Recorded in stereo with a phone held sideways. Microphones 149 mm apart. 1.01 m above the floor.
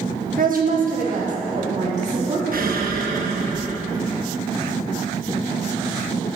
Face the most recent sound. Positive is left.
turn(degrees=-75)  # may be behind; listen again after turning